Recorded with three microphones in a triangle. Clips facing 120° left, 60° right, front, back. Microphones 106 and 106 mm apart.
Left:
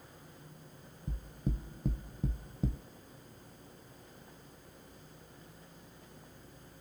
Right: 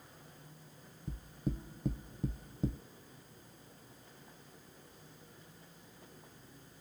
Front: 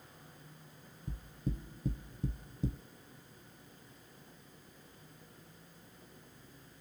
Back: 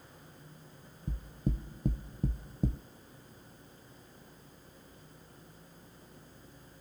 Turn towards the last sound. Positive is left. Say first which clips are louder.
# even, back 4 dB
turn(degrees=-150)